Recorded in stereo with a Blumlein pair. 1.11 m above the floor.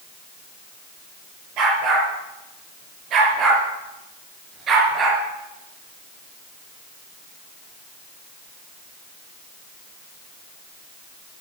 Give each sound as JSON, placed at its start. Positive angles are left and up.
{"t": 1.6, "sound": "a dog barking", "azimuth_deg": -35, "distance_m": 6.5}